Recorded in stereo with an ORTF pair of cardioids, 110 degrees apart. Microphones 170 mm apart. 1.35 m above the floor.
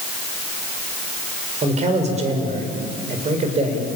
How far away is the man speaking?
About 5.5 m.